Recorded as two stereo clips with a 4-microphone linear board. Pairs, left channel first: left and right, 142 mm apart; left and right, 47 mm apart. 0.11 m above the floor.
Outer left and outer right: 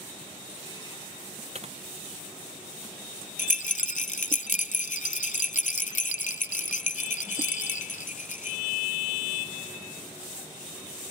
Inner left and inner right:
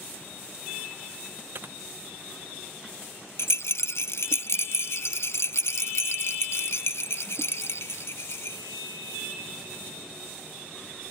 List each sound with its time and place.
1.6 s typing on a keyboard: 50° right (ahead or behind)
3.4 s a rattle: 65° left (ahead or behind)